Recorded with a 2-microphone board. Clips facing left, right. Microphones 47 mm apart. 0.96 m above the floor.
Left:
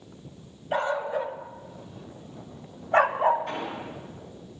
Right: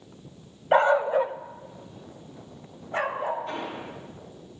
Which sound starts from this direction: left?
An explosion, at 3.5 s.